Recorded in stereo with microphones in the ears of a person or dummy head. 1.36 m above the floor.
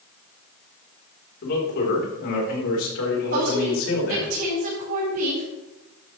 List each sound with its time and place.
1.4 s a man speaking: 55° left (ahead or behind), 4 m; by 4.3 s 80° left, 5 m
3.3 s a woman speaking: 50° right (ahead or behind), 5 m